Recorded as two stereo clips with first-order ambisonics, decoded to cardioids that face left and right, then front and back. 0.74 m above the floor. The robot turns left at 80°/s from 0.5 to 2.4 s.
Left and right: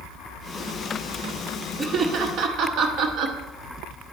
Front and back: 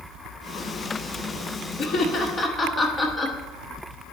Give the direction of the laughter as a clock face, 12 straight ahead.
1 o'clock.